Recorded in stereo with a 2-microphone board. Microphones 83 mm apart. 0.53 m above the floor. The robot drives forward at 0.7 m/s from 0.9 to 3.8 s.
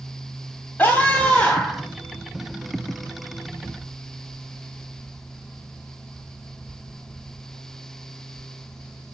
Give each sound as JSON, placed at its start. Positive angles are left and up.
{"t": 0.8, "sound": "a scream", "side_deg": 25, "distance_m": 1.2}